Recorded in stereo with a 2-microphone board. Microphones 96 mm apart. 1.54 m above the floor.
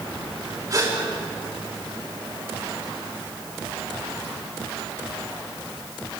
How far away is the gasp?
About 5 m.